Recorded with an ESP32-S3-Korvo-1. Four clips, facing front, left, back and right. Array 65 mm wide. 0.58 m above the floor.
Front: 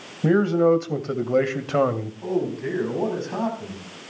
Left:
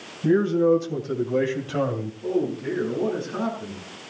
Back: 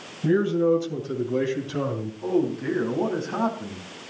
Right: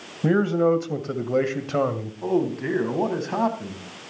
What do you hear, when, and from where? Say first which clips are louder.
0.2 s a man speaking: left 1 dB, front 3 dB; 45° right, 2.5 m; by 2.1 s 15° right, 2 m
2.2 s a man speaking: right 2 dB, back 2 dB; 95° right, 5 m